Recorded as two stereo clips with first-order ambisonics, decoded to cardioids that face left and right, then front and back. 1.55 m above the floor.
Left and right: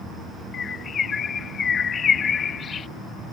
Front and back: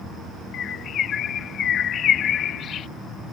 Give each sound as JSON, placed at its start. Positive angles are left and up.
{"t": 0.5, "sound": "a bird", "azimuth_deg": 35}